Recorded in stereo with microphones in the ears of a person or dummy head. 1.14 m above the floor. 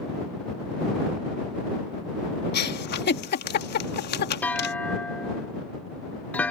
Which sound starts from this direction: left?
A giggle, at 2.5 s.